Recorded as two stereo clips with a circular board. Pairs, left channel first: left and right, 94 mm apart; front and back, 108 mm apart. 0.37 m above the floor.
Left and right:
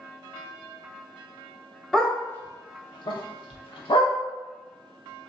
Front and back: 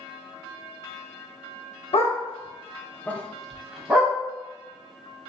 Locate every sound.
1.9 s a dog barking: straight ahead, 0.7 m; by 4.1 s 105° left, 1.1 m